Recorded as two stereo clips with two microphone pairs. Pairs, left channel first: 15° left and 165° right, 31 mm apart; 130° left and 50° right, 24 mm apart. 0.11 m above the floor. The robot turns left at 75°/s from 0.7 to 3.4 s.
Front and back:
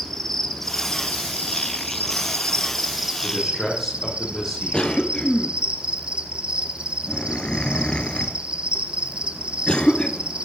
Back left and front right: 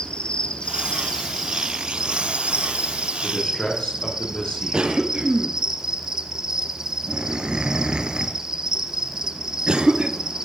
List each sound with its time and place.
0.0 s an insect: 90° left, 1.8 m; by 10.4 s 110° right, 1.8 m
3.2 s a man speaking: 110° left, 7 m; by 5.0 s 95° left, 7 m
4.7 s a cough: 35° right, 1.9 m